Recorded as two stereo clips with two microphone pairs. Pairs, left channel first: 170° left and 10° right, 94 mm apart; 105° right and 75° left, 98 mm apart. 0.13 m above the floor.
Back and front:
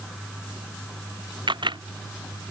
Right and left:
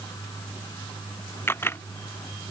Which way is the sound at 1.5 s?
40° right.